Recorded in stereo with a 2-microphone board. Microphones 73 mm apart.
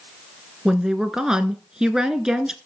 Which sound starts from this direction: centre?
A woman speaking, at 0.7 s.